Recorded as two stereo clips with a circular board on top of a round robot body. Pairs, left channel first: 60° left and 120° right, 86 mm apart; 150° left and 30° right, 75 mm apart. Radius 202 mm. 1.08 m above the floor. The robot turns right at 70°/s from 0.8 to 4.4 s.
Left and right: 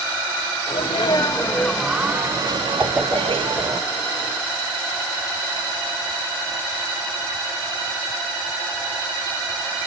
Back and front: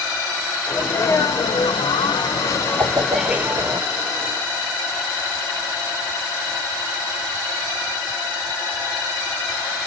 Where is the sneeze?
80° left, 0.9 m; by 3.8 s 70° right, 0.9 m.